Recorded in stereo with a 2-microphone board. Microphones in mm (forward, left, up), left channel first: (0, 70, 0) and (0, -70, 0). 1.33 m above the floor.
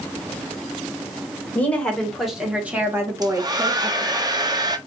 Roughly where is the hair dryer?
Right.